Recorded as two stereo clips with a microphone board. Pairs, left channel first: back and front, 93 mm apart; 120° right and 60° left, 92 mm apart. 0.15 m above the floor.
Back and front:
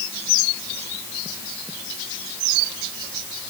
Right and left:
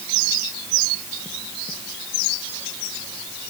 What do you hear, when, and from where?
Only background noise.